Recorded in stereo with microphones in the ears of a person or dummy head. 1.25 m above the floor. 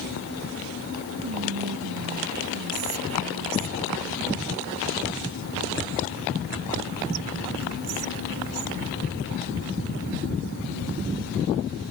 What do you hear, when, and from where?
1.2 s whispering: 75° right (ahead or behind)